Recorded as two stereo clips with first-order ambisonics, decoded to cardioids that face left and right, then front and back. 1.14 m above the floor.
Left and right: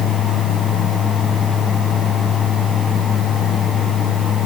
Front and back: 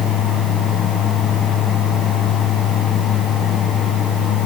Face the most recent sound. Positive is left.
No sound to turn to.